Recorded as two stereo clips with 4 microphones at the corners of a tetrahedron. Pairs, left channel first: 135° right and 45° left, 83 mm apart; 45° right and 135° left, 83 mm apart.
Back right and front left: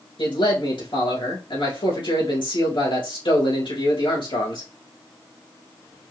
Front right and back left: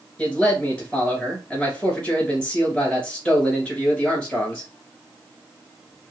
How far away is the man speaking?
About 3 m.